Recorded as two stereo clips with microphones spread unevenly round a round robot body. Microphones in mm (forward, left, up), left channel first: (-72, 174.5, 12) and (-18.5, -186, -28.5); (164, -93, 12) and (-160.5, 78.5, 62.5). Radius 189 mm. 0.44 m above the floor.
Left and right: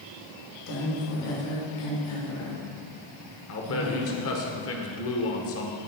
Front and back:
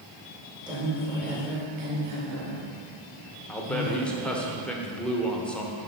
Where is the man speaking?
50° left, 1.1 m.